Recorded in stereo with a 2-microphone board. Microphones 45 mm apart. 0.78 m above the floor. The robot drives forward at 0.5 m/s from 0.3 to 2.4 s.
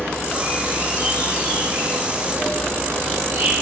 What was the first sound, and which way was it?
An insect, 60° right (ahead or behind).